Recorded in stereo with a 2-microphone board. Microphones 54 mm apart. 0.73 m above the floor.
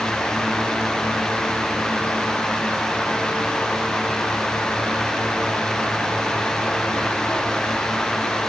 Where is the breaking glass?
I don't hear breaking glass.